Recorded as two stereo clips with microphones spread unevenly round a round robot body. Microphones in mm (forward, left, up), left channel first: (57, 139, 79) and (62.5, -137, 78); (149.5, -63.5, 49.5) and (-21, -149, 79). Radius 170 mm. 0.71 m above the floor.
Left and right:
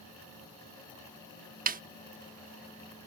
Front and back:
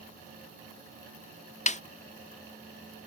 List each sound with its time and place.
1.7 s a snare drum: 30° right